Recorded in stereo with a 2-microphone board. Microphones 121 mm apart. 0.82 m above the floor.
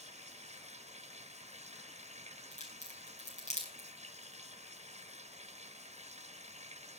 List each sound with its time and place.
0.0 s running water: 75° right (ahead or behind), 1.1 m
2.5 s a crack: 85° left, 6 m